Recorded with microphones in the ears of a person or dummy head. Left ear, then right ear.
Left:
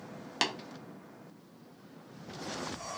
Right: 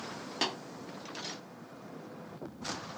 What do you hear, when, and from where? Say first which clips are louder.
0.4 s tapping: left 2 dB; 30° left (ahead or behind), 0.6 m